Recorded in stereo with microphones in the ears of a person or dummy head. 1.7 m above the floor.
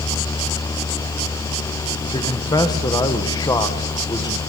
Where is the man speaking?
15° left (ahead or behind), 1.8 m.